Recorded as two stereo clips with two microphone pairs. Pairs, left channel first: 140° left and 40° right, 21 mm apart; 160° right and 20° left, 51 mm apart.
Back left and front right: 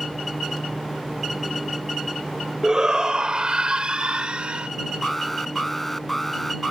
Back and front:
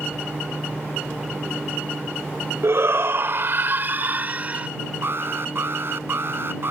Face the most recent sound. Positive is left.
turn(degrees=60)